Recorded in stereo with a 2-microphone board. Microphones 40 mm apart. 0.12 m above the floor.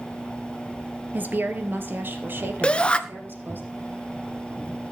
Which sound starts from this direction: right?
A woman speaking, at 1.1 s.